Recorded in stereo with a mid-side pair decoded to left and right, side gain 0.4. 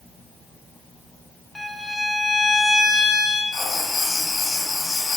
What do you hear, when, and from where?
1.6 s a violin: 15° left, 0.8 m
3.5 s writing: 40° left, 1.3 m